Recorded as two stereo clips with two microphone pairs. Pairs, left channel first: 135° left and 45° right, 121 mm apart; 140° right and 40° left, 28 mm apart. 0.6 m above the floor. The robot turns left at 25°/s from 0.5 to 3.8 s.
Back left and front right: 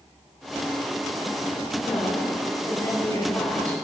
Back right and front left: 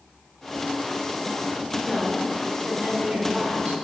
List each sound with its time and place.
1.8 s a woman speaking: 110° left, 2.5 m; by 3.8 s 60° left, 2.5 m